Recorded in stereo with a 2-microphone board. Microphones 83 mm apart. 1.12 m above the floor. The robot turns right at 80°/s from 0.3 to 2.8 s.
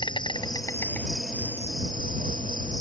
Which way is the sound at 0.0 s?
110° left.